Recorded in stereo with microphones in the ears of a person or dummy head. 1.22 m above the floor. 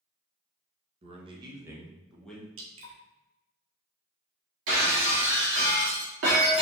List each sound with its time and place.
1.0 s a man speaking: 35° right (ahead or behind), 1.2 m; by 2.5 s 10° left (ahead or behind), 1.2 m
2.6 s dripping: 70° right (ahead or behind), 1.0 m
4.7 s breaking glass: 65° right (ahead or behind), 1.5 m